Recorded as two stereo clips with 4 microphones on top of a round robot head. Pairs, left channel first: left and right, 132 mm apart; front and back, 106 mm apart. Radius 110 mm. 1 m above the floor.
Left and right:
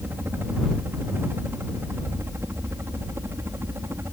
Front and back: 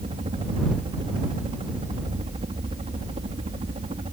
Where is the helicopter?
160° right; by 4.1 s 155° right.